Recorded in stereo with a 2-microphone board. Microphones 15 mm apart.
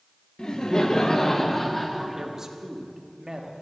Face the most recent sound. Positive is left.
turn(degrees=-40)  # may be behind; listen again after turning